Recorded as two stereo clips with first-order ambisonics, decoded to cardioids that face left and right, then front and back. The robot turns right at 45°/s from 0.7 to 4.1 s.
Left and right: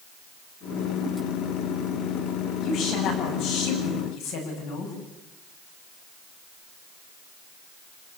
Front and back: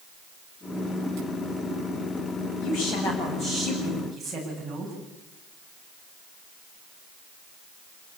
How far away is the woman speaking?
About 8.5 m.